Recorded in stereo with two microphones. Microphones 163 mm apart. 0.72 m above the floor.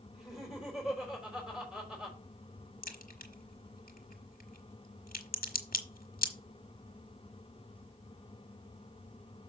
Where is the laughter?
5° right (ahead or behind), 4 m.